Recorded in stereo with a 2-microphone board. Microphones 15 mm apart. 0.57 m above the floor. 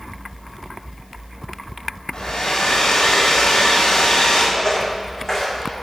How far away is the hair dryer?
About 2.5 m.